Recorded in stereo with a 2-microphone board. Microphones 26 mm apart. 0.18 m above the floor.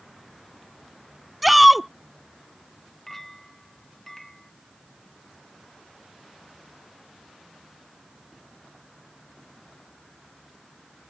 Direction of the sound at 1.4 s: 5° right (ahead or behind).